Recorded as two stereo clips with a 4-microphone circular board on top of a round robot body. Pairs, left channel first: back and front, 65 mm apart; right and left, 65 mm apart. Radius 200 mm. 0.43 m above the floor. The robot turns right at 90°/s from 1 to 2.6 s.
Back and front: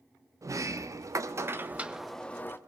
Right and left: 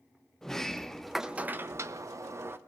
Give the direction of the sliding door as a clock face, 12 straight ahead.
12 o'clock.